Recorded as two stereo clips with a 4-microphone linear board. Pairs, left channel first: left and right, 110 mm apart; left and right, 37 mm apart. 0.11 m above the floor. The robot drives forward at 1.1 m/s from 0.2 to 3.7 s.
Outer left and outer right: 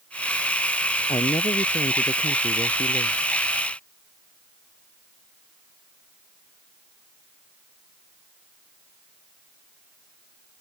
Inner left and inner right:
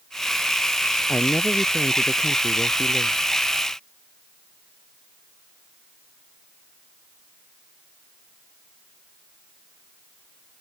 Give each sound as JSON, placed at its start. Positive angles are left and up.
{"t": 1.1, "sound": "a man speaking", "side_deg": 45}